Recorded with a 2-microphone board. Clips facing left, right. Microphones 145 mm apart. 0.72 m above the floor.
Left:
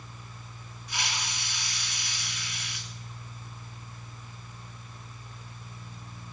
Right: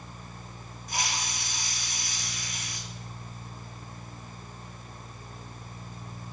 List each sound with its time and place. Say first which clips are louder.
0.9 s a hiss: right 2 dB; 45° right (ahead or behind), 1.6 m